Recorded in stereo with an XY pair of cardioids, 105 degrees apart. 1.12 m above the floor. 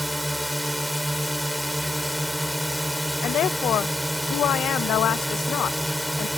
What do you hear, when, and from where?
0.0 s a drone: straight ahead
3.2 s a woman speaking: 70° left